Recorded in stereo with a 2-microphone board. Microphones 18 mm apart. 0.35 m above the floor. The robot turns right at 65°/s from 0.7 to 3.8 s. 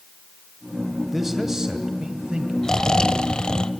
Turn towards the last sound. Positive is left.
turn(degrees=120)